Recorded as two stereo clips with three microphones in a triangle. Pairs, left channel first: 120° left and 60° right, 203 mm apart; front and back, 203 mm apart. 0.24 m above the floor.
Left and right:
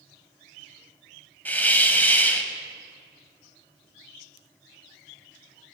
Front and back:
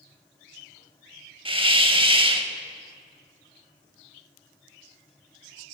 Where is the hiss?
170° right, 0.5 m.